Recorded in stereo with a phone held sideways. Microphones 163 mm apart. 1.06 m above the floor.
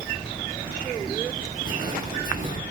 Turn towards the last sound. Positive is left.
turn(degrees=55)  # may be behind; listen again after turning